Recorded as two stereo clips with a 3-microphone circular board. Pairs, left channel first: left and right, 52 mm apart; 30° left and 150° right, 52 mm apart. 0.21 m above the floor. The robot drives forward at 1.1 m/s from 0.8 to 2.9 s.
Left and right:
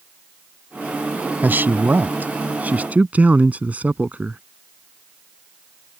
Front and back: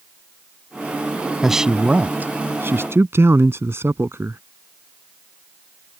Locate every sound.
1.4 s a man speaking: 65° right; by 4.4 s 145° right